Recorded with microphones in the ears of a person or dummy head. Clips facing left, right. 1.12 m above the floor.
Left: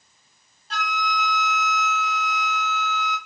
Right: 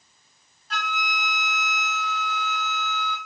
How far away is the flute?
About 1.0 m.